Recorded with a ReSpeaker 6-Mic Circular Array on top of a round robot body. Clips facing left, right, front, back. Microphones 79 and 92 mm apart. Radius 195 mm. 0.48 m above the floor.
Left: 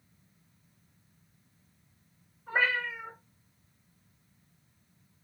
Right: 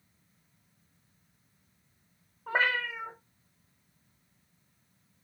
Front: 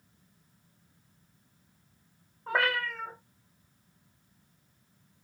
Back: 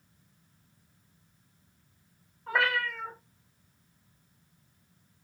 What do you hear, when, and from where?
2.5 s a cat meowing: 55° right, 0.7 m